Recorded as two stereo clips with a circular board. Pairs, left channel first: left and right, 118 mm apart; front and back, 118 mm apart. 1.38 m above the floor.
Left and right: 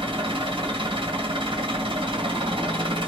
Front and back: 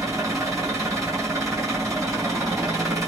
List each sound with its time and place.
0.0 s an engine running: 120° right, 1.9 m